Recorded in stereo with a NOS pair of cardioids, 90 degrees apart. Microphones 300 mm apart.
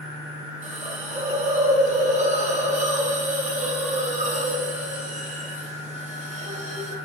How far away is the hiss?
About 1.0 m.